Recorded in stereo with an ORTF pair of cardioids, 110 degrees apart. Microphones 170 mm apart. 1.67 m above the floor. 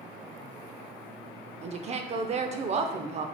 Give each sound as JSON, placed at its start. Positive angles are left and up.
{"t": 1.6, "sound": "a woman speaking", "azimuth_deg": -35, "distance_m": 0.6}